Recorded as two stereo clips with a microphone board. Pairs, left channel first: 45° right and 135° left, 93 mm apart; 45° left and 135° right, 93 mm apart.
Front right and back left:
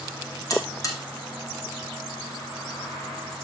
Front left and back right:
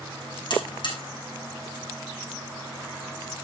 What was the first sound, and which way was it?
A buzzer, 10° left.